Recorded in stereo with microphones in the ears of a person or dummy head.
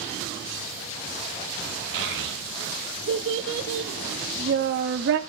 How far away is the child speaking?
About 1.1 m.